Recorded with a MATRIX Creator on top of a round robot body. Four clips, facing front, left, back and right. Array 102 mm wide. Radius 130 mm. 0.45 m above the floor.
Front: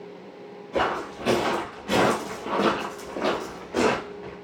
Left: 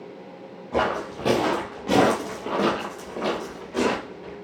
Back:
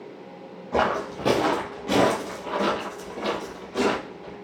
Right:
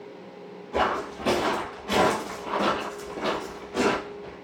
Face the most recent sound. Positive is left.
turn(degrees=15)